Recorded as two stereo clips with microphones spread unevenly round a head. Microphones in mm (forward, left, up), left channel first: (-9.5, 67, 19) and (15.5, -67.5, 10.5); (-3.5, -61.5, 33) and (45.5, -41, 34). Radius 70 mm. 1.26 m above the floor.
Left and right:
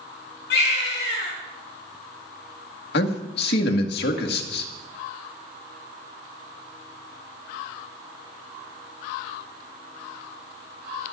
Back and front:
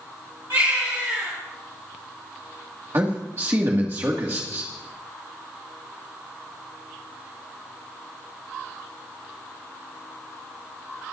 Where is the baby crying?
90° left, 4 m.